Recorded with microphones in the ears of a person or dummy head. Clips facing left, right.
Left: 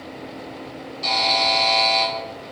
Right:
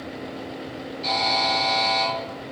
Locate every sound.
1.0 s a buzzer: 85° left, 1.3 m